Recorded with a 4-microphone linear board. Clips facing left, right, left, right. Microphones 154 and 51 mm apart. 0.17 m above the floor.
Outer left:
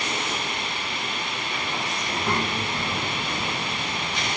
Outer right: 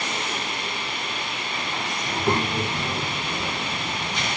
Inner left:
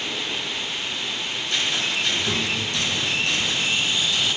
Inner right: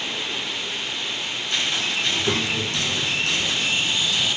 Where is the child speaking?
20° right (ahead or behind), 0.7 m.